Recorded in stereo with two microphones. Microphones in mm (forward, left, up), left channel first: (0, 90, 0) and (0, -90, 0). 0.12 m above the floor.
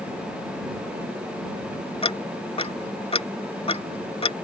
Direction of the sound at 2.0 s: 30° left (ahead or behind).